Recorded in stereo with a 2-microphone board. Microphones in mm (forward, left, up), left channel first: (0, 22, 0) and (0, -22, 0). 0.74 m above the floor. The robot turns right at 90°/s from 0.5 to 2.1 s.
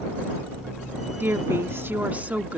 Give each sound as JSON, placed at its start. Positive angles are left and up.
{"t": 1.2, "sound": "a woman speaking", "azimuth_deg": -120}